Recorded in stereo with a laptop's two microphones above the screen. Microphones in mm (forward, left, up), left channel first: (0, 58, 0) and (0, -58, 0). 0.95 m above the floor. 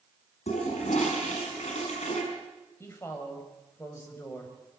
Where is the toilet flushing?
85° left, 6.5 m.